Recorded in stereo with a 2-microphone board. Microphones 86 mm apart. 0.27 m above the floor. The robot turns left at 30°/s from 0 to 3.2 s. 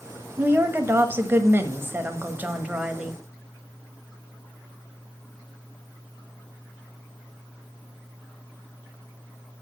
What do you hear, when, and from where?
0.4 s a woman speaking: 25° right (ahead or behind), 1.2 m; by 3.2 s 15° right (ahead or behind), 1.2 m